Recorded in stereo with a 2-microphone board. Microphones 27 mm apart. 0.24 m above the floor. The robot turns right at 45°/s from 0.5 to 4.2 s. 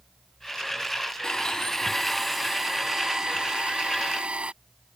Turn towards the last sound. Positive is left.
turn(degrees=-90)